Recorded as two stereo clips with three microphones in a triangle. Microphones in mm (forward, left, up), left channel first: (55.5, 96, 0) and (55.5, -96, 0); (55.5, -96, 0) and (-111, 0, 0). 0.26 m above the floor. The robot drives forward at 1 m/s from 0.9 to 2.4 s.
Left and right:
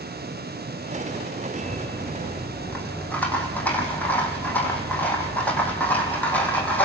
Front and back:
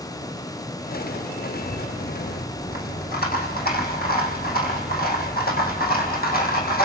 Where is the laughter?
I don't hear laughter.